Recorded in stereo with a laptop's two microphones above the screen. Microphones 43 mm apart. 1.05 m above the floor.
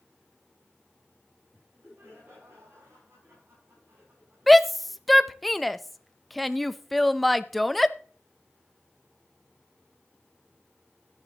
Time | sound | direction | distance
1.5 | laughter | 85° right | 9 m
4.5 | a shout | 5° left (ahead or behind) | 0.5 m